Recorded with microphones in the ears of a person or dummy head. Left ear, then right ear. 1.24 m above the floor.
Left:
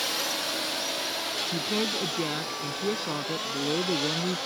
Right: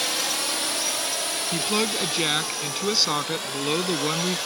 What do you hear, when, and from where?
0.0 s a drone: 20° right (ahead or behind); by 4.5 s 45° right (ahead or behind)
1.5 s a woman speaking: 60° right (ahead or behind)